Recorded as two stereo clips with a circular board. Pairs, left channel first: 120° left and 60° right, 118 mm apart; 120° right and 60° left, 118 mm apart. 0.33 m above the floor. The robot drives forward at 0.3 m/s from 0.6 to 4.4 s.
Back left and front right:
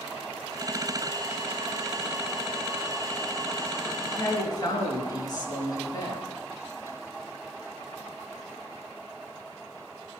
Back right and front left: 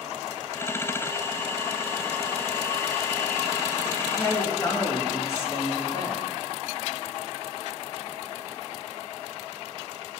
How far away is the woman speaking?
About 4.5 m.